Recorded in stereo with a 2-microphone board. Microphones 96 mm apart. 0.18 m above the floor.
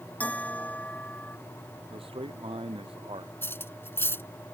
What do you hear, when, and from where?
0.2 s a bell: 15° left (ahead or behind)
1.9 s a man speaking: 75° right (ahead or behind)
3.4 s cutlery clinking: 25° left (ahead or behind)